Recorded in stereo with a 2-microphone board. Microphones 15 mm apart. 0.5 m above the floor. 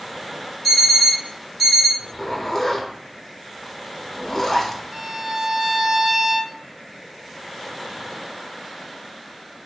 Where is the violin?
35° right (ahead or behind), 0.6 m.